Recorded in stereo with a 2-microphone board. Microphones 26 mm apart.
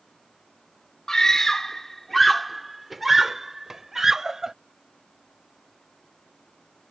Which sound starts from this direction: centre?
A scream, at 1.1 s.